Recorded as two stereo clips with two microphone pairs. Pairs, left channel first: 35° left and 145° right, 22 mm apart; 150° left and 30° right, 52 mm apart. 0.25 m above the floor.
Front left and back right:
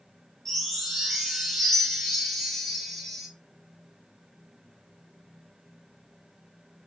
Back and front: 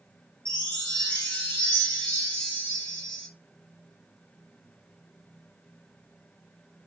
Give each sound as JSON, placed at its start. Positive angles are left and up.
{"t": 0.5, "sound": "a chime", "azimuth_deg": 115, "distance_m": 1.6}